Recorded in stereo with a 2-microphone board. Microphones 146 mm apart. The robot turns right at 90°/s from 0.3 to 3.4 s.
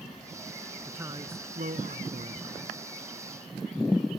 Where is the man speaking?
175° right; by 2.6 s 20° right.